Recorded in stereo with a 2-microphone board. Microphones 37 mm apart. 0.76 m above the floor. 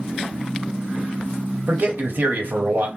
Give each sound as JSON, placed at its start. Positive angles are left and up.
{"t": 1.7, "sound": "a man speaking", "side_deg": -55, "distance_m": 1.0}